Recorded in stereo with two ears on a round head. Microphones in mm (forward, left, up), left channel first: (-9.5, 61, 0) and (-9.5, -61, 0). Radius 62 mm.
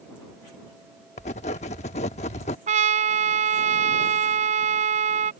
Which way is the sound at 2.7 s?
55° right (ahead or behind).